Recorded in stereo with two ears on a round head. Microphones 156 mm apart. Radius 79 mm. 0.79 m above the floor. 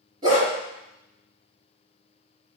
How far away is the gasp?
I don't hear a gasp.